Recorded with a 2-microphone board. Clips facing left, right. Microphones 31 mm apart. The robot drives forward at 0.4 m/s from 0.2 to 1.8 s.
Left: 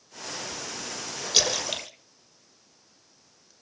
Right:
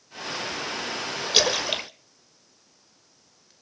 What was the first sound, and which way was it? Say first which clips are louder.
A splash: right 4 dB; 20° right (ahead or behind).